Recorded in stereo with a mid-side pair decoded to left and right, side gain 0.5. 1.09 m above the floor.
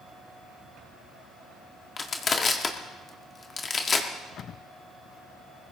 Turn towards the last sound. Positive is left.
turn(degrees=40)